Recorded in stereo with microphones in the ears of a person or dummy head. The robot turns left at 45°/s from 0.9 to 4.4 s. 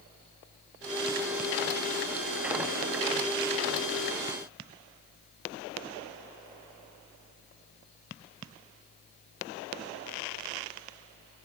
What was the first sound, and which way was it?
Only background noise.